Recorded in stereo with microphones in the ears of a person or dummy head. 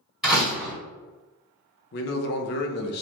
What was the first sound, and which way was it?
A door slam, 5° right (ahead or behind).